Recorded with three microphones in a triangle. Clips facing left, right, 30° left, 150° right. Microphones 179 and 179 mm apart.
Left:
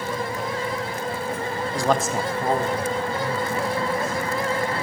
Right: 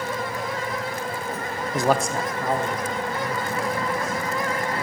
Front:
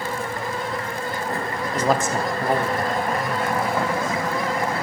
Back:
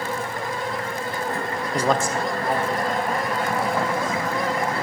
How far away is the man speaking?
About 0.7 m.